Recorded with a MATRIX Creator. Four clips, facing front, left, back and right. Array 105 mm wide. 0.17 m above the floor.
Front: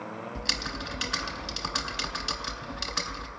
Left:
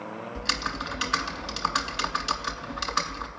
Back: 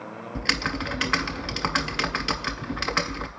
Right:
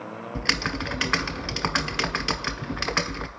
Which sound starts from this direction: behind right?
Typing on a keyboard, at 0.3 s.